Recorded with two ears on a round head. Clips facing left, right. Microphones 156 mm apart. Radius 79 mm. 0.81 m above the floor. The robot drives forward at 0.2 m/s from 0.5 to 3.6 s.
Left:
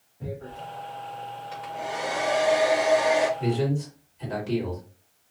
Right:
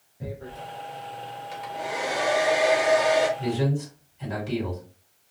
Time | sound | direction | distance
0.2 | tearing paper | 20° right (ahead or behind) | 0.9 m
1.5 | a hair dryer | 15° right (ahead or behind) | 1.1 m
3.4 | a man speaking | centre (ahead or behind) | 1.9 m